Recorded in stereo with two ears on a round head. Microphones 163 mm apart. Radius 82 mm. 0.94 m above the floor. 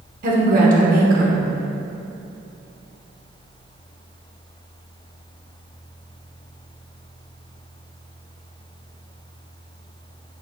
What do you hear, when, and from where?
0.2 s a woman speaking: 50° right (ahead or behind), 0.9 m